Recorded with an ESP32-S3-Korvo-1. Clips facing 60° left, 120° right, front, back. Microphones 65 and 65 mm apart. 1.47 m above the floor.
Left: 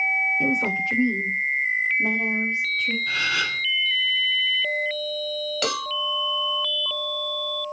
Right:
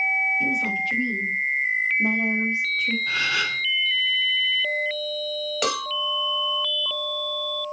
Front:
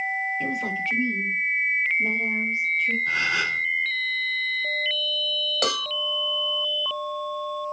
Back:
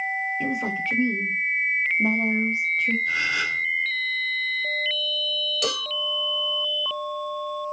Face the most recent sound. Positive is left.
turn(degrees=-50)